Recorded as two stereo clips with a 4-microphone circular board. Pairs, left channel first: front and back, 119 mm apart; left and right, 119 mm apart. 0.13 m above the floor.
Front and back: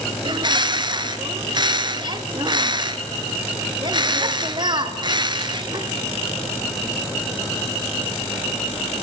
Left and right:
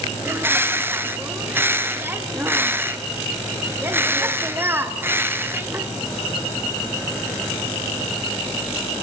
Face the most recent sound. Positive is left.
turn(degrees=-155)